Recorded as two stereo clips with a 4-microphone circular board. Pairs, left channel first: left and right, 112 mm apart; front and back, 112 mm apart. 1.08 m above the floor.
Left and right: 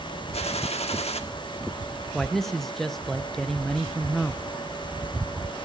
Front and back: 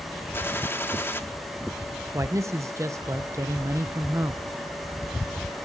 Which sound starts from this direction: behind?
A man speaking, at 2.1 s.